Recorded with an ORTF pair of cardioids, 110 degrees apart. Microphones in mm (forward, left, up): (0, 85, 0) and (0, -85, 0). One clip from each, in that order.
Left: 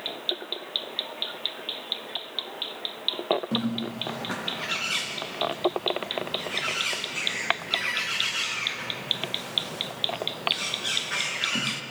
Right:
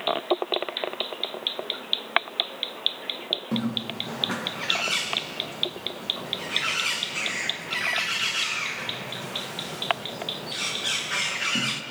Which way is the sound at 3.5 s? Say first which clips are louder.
Right 1 dB; 10° right.